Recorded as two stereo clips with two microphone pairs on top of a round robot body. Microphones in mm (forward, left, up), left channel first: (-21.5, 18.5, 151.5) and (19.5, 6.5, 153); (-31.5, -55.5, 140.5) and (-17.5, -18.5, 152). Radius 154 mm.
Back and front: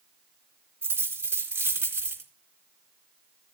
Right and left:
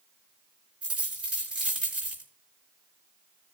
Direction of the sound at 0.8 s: 15° left.